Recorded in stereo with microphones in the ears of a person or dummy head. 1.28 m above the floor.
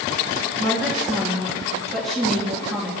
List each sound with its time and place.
0.6 s a woman speaking: centre (ahead or behind), 2.5 m